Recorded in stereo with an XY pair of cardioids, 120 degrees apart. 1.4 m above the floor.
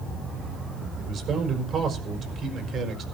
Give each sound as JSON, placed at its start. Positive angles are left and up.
{"t": 1.0, "sound": "a man speaking", "azimuth_deg": -45, "distance_m": 4.5}